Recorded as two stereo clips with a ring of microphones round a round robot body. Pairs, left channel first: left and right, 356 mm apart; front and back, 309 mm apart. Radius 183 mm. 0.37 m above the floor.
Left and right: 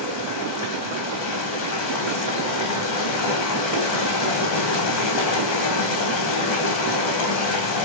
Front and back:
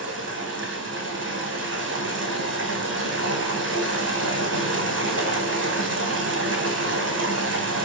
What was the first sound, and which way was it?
Running water, 130° left.